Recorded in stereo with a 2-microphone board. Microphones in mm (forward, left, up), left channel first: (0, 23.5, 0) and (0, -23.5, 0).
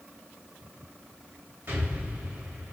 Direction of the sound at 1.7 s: 40° right (ahead or behind).